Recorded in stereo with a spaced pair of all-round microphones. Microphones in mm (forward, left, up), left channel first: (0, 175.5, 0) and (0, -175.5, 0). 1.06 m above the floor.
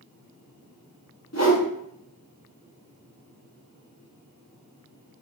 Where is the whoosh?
45° left (ahead or behind), 1.1 m.